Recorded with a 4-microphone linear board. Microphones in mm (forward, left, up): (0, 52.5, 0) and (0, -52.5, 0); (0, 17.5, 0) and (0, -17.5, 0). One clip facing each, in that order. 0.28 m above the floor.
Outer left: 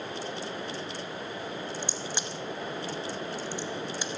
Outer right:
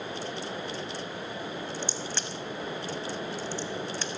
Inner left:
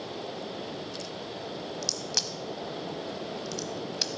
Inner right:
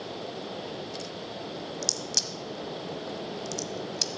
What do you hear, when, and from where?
1.8 s a crack: 15° left (ahead or behind), 0.8 m